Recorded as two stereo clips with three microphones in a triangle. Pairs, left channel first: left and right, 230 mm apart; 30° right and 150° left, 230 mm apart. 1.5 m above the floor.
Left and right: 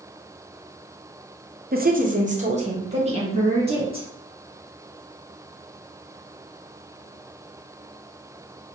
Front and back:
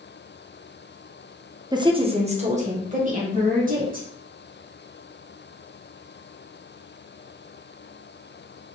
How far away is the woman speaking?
About 0.7 m.